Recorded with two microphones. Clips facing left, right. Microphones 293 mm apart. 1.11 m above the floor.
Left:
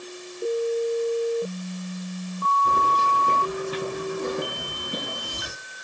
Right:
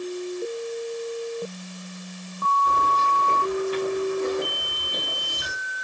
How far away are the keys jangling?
About 6.5 m.